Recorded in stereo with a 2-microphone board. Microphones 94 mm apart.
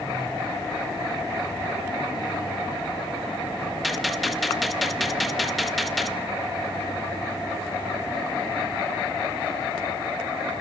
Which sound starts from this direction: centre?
A gunshot, at 3.8 s.